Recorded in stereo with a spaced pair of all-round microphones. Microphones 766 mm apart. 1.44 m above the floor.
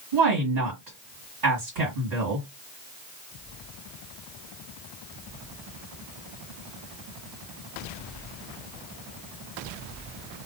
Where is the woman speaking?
65° right (ahead or behind), 1.9 m.